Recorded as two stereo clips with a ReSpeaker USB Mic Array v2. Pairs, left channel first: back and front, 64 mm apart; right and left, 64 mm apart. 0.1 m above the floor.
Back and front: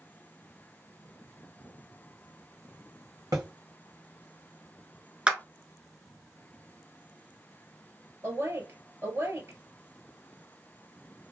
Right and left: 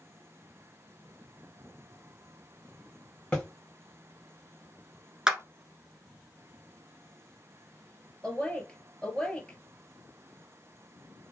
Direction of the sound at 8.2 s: 15° right.